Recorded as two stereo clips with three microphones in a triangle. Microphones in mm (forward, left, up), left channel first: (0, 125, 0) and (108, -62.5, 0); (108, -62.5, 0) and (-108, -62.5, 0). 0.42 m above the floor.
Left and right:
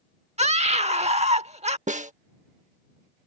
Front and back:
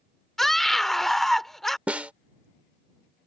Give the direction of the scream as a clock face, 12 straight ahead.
3 o'clock.